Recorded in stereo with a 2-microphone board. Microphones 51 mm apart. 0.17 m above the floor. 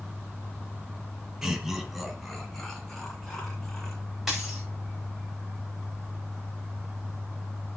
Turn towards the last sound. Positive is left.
turn(degrees=0)  # may be behind; listen again after turning